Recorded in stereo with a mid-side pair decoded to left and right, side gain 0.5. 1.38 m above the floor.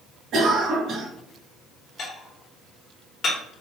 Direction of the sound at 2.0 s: 55° left.